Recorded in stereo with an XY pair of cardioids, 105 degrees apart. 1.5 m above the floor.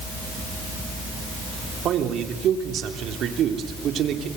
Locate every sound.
1.9 s a man speaking: 70° right, 3.5 m